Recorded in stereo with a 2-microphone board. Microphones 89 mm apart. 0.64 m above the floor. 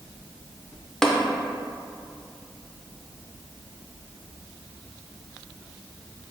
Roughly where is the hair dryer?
No hair dryer in this recording.